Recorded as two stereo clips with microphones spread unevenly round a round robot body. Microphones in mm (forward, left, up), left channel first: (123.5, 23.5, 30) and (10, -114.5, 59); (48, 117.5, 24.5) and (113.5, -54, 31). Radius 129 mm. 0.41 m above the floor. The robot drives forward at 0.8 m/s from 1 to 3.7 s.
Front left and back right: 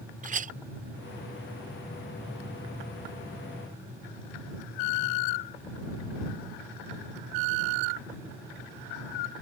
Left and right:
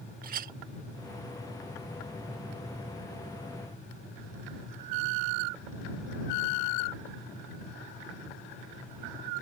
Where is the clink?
90° right.